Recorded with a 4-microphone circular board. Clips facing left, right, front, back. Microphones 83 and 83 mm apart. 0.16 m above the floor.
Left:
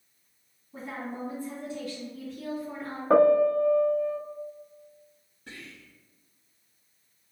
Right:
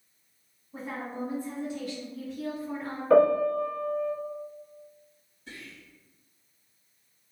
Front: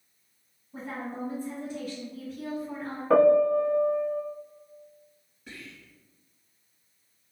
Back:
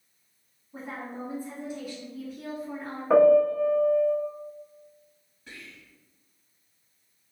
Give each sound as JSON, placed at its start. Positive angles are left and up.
{"t": 0.7, "sound": "a woman speaking", "azimuth_deg": -125, "distance_m": 1.2}
{"t": 3.1, "sound": "a piano", "azimuth_deg": 105, "distance_m": 0.6}
{"t": 5.5, "sound": "whispering", "azimuth_deg": 95, "distance_m": 1.8}